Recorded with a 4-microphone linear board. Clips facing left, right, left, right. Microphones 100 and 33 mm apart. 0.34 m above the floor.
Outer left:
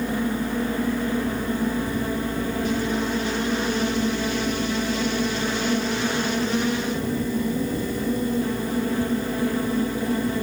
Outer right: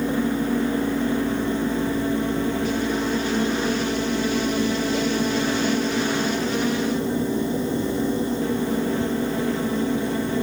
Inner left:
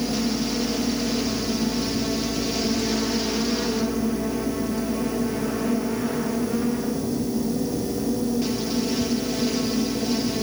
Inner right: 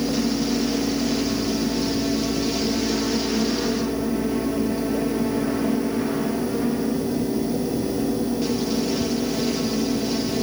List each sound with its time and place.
Only background noise.